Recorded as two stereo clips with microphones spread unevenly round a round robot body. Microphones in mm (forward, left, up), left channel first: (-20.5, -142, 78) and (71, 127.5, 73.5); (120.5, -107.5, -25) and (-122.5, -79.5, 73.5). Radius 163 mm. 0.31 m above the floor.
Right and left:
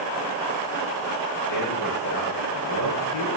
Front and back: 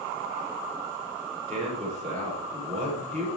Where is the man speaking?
120° right, 9 m.